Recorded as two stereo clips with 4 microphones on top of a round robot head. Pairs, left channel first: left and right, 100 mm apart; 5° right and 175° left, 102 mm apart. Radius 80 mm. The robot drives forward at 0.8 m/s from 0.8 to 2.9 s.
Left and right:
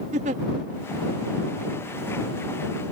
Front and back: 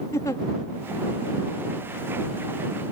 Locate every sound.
0.1 s a giggle: 75° right